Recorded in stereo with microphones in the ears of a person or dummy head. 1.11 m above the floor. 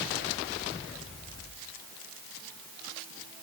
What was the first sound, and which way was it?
Only background noise.